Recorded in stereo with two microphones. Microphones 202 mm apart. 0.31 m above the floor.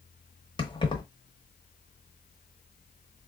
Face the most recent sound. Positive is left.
turn(degrees=25)  # may be behind; listen again after turning